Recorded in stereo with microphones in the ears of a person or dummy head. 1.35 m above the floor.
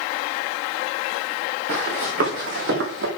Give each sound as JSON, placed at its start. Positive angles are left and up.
{"t": 1.7, "sound": "running footsteps", "side_deg": -55, "distance_m": 5.5}